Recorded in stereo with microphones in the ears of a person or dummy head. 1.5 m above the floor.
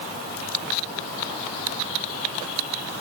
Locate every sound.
Only background noise.